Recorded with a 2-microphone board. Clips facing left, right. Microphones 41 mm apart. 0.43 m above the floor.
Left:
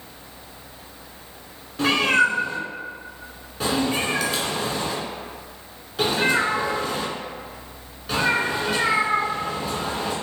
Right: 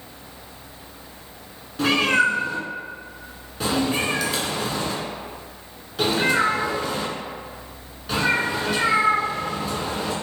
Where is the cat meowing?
Centre (ahead or behind), 0.7 m.